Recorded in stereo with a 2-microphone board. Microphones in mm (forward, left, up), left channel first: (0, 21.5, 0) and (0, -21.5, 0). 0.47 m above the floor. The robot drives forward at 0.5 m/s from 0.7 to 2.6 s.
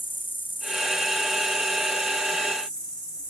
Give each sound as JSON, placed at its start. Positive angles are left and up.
{"t": 0.0, "sound": "an insect", "side_deg": 45, "distance_m": 1.2}